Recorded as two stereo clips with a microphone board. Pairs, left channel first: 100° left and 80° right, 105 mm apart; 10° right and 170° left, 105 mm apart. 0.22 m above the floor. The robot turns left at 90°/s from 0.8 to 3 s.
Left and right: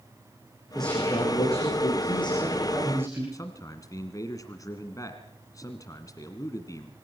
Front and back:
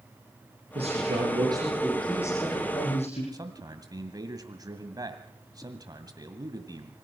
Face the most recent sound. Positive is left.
turn(degrees=135)